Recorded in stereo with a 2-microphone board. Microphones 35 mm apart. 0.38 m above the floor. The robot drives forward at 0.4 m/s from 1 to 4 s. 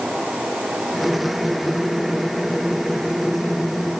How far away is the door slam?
I don't hear a door slam.